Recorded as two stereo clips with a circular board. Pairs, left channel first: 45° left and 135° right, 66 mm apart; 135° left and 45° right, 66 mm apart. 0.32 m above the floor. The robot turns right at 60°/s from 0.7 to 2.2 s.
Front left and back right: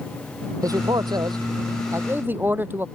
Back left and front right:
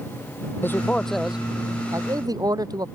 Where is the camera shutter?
I don't hear a camera shutter.